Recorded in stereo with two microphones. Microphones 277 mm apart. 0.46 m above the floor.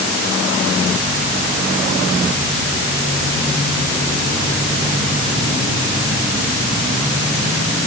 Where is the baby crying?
No baby crying in this recording.